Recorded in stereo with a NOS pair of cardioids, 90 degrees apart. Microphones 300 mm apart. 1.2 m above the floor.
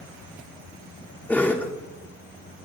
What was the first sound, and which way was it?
A cough, 5° left.